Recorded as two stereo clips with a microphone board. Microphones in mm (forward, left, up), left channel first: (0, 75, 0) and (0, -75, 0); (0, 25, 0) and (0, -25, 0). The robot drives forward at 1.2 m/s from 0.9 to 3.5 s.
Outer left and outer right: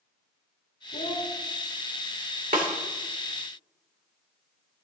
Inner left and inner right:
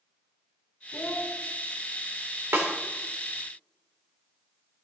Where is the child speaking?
75° left (ahead or behind), 1.5 m; by 1.3 s 65° left (ahead or behind), 1.6 m.